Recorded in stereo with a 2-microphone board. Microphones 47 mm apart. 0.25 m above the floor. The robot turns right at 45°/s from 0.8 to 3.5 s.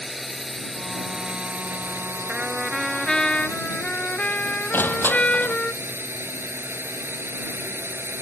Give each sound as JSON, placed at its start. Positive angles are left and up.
{"t": 0.0, "sound": "a drone", "azimuth_deg": 180}
{"t": 2.3, "sound": "a trumpet", "azimuth_deg": -25}
{"t": 4.7, "sound": "crushing", "side_deg": 50}